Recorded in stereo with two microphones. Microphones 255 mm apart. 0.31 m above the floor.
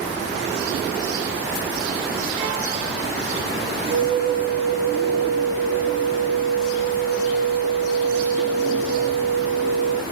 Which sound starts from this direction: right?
A flute, at 3.9 s.